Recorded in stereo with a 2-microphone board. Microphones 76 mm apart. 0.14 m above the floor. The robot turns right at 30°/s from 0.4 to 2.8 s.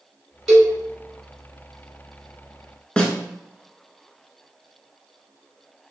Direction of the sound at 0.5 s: Centre (ahead or behind).